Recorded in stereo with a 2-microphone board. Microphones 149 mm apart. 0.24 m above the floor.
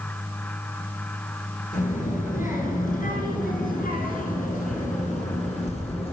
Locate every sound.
1.7 s a child speaking: 60° left (ahead or behind), 3 m; by 6.1 s 40° left (ahead or behind), 2.5 m